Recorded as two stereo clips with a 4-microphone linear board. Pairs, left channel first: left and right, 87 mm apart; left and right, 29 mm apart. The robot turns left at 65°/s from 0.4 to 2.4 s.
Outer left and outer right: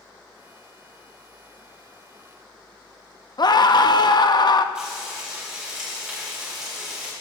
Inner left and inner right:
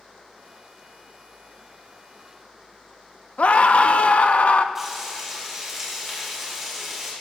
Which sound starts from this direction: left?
A scream, at 3.4 s.